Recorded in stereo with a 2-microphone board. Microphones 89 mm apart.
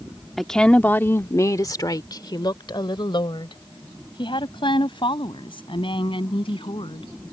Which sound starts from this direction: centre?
A woman speaking, at 0.4 s.